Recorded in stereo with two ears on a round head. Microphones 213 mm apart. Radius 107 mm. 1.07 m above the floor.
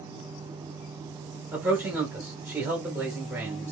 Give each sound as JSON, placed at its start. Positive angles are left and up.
{"t": 1.5, "sound": "a man speaking", "side_deg": -10, "distance_m": 1.1}